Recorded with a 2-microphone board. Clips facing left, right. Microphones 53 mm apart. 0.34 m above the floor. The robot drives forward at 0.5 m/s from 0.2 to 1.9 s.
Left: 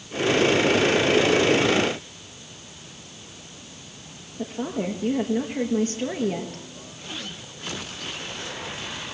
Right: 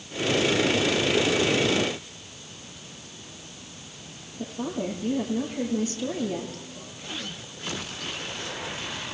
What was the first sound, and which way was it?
A woman speaking, 45° left (ahead or behind).